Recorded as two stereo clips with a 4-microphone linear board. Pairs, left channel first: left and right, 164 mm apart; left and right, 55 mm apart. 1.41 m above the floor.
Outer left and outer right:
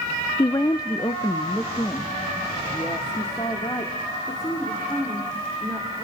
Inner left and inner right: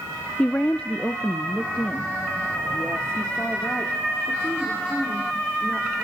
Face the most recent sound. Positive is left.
turn(degrees=20)  # may be behind; listen again after turning